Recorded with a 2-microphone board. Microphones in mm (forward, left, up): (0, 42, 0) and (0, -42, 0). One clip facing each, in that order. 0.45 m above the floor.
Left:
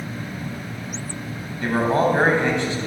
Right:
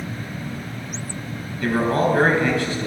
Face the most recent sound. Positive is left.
turn(degrees=25)  # may be behind; listen again after turning